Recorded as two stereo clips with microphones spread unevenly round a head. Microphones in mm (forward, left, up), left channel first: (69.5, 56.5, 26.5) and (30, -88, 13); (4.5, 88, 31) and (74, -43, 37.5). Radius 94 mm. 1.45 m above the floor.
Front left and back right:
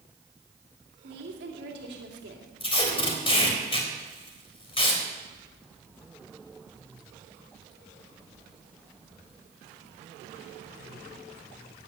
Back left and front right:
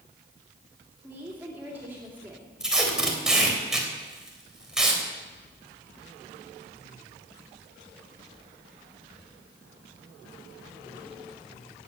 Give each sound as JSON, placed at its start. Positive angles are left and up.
{"t": 1.0, "sound": "a woman speaking", "azimuth_deg": -140, "distance_m": 3.0}
{"t": 2.6, "sound": "tape being pulled", "azimuth_deg": 25, "distance_m": 3.5}